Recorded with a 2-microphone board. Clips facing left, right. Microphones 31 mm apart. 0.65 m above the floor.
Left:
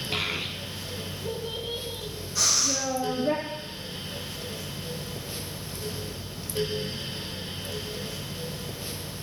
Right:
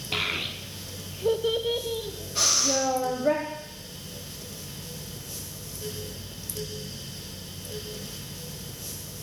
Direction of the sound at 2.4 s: 50° right (ahead or behind).